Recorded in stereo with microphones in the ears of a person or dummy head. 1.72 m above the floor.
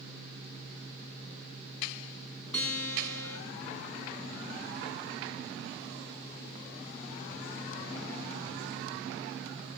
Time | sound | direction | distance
2.5 | a guitar | 15° left (ahead or behind) | 2.5 m